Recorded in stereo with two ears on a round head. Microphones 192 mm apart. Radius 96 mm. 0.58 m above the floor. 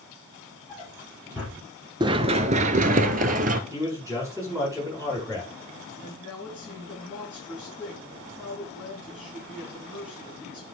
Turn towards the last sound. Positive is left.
turn(degrees=-5)  # may be behind; listen again after turning